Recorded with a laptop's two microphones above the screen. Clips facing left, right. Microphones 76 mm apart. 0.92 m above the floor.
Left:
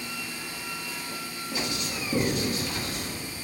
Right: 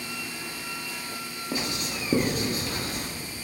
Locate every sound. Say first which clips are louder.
1.5 s writing: right 1 dB; 40° right (ahead or behind), 1.1 m